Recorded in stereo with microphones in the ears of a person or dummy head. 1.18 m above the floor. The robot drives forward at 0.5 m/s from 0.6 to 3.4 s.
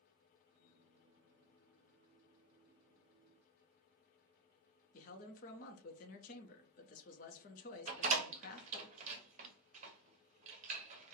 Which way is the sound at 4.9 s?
40° left (ahead or behind).